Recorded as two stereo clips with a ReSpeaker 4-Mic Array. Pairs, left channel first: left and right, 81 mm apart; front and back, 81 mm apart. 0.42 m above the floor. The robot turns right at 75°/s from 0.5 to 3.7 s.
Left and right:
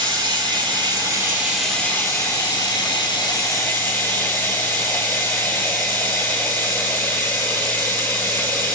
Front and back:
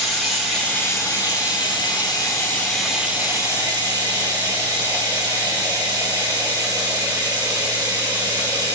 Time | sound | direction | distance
0.0 | running water | 90° right | 3.5 m